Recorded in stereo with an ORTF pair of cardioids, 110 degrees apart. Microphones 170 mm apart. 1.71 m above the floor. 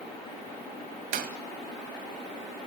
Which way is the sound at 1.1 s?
60° right.